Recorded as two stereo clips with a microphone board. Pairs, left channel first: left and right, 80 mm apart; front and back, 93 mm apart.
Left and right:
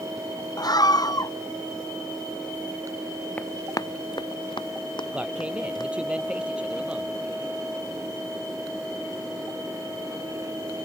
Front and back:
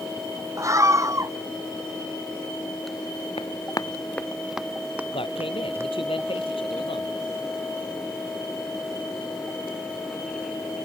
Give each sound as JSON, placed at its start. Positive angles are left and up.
{"t": 0.6, "sound": "a scream", "azimuth_deg": 125}
{"t": 3.4, "sound": "running footsteps", "azimuth_deg": 25}
{"t": 5.1, "sound": "a man speaking", "azimuth_deg": -15}